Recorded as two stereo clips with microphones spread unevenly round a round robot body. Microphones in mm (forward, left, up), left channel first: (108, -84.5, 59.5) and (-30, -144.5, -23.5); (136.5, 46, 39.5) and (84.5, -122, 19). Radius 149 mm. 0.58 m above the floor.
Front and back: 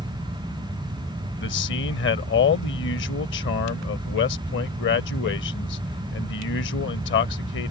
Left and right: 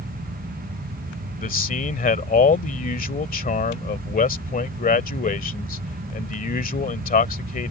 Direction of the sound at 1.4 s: 35° left.